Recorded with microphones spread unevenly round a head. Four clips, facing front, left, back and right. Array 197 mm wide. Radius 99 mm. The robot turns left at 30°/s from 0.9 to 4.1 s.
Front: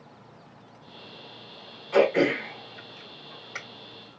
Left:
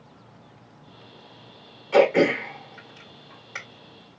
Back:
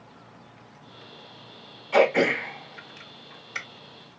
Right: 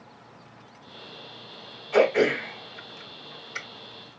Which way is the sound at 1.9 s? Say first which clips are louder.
Left 3 dB, back 1 dB; 95° left.